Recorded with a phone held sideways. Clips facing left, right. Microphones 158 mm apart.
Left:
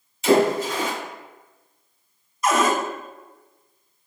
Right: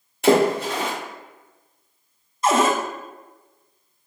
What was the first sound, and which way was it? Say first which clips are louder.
A splash: right 1 dB; 65° right (ahead or behind).